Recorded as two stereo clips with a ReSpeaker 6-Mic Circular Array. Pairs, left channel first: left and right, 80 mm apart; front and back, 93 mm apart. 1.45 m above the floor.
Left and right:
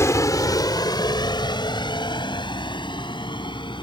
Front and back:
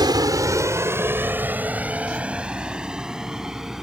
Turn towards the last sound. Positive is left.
turn(degrees=95)